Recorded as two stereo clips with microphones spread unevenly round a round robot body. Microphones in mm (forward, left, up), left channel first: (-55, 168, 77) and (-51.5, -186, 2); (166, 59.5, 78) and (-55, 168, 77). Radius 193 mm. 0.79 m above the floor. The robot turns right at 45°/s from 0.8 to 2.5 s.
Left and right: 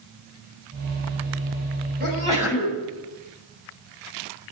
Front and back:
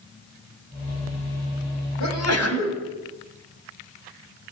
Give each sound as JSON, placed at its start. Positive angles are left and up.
{"t": 2.0, "sound": "a sneeze", "azimuth_deg": -25, "distance_m": 7.0}